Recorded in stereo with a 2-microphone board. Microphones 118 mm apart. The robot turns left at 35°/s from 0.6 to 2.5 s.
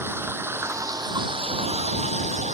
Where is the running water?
20° right; by 2.6 s 85° right.